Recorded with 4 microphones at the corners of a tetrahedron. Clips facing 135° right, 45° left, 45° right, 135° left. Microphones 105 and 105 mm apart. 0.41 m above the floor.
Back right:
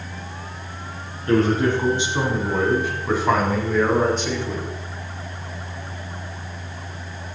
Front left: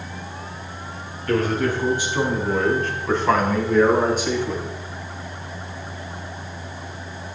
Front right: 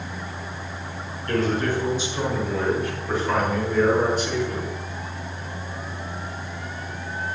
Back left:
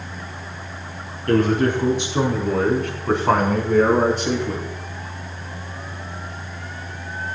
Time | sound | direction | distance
1.3 | a man speaking | 165° left | 5 m